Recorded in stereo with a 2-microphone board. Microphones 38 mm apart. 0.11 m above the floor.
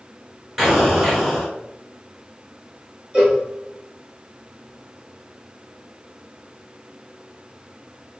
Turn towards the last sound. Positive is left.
turn(degrees=-25)  # may be behind; listen again after turning